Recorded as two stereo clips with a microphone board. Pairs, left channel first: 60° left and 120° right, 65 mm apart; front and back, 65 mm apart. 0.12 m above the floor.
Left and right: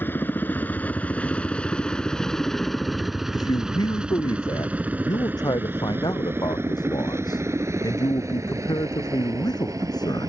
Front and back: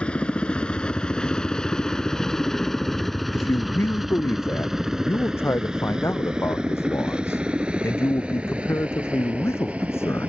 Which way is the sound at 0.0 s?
55° left.